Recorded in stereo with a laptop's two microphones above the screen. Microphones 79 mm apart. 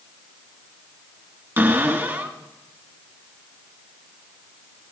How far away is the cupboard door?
About 2.5 m.